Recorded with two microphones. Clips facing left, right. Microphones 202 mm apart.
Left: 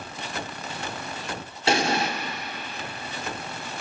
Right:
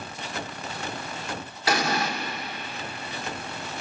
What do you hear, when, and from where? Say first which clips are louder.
1.7 s an explosion: left 2 dB; 30° left (ahead or behind), 1.0 m